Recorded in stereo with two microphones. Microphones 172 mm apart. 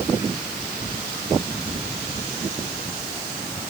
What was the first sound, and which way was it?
Only background noise.